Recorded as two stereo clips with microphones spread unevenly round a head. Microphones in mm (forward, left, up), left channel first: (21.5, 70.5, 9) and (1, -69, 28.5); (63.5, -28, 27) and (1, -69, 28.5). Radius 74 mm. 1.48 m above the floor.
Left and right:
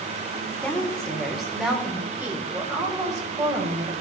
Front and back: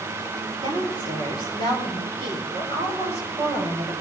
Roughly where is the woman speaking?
Behind.